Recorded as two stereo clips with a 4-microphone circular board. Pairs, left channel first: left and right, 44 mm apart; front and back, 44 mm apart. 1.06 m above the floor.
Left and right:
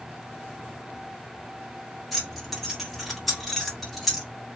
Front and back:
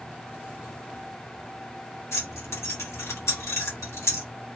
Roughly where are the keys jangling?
Ahead.